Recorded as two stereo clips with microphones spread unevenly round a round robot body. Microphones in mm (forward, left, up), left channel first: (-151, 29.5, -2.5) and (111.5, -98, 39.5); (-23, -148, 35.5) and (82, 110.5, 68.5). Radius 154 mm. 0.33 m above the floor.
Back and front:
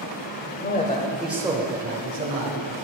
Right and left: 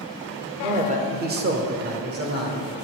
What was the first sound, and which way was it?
A man speaking, 135° left.